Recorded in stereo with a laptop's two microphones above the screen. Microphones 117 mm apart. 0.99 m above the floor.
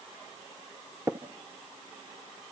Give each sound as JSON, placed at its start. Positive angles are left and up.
{"t": 1.1, "sound": "tapping", "side_deg": -20, "distance_m": 0.8}